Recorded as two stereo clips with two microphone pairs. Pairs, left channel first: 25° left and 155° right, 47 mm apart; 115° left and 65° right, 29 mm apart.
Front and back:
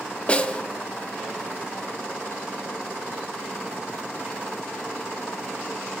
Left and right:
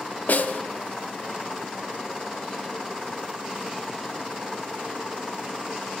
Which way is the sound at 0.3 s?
90° left.